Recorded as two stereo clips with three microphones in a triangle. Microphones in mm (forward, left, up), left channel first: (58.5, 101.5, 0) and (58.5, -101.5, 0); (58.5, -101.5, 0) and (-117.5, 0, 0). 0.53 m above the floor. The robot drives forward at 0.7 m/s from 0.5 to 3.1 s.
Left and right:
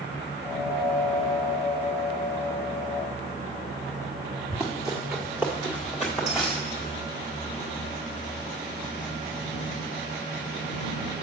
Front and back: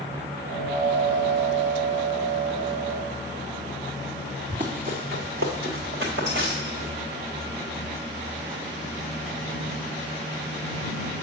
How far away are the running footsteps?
About 2.5 m.